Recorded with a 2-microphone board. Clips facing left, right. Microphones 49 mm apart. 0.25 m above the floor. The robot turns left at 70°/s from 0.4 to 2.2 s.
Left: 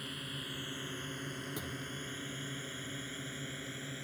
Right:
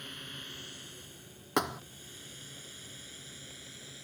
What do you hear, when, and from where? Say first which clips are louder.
0.0 s a drone: left 2 dB; 5° left (ahead or behind); by 4.0 s 30° left (ahead or behind)
1.6 s a thud: right 11 dB; 75° right (ahead or behind); by 1.8 s 85° right